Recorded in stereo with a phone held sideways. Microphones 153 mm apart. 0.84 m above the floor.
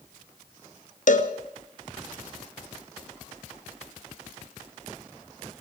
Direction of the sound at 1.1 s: 60° left (ahead or behind).